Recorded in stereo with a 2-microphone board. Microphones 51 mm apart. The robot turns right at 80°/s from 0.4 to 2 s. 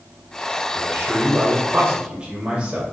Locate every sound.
0.7 s a man speaking: 120° right, 1.8 m; by 2.8 s 20° right, 1.8 m